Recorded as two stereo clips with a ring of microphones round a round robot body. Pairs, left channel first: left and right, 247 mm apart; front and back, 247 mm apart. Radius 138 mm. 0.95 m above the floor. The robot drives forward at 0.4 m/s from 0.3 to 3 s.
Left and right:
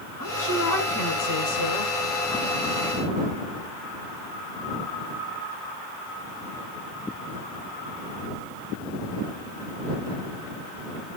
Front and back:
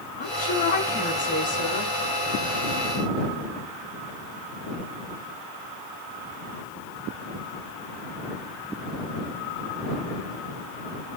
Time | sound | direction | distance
0.2 | a woman speaking | 60° left | 7.5 m